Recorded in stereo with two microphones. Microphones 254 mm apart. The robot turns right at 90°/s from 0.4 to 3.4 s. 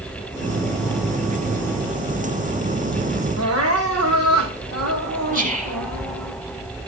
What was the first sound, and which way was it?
Crying, 75° right (ahead or behind).